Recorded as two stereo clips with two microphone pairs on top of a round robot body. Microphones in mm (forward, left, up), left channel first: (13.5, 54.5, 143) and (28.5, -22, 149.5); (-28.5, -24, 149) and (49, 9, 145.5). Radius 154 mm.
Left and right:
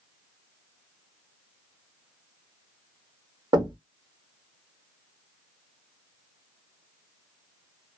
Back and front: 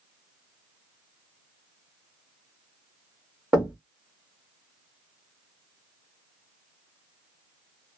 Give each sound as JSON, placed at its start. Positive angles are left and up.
{"t": 3.5, "sound": "knocking", "azimuth_deg": -55, "distance_m": 1.4}